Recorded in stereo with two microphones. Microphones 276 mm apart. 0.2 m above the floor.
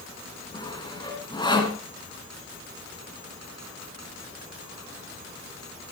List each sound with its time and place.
0.5 s sawing: 15° left (ahead or behind), 2.5 m